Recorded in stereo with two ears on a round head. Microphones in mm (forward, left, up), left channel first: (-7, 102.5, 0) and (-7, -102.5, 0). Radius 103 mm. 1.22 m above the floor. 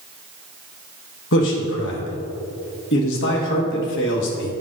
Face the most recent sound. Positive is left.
turn(degrees=55)  # may be behind; listen again after turning